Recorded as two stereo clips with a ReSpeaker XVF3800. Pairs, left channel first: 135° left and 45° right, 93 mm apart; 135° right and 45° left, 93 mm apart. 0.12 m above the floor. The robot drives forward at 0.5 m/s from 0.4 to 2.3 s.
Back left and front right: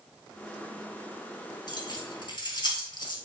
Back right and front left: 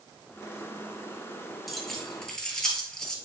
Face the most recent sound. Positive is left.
turn(degrees=145)